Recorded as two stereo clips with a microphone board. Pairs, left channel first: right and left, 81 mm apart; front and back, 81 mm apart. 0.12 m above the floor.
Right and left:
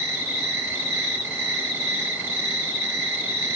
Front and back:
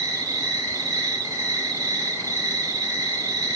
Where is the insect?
145° left, 1.8 m.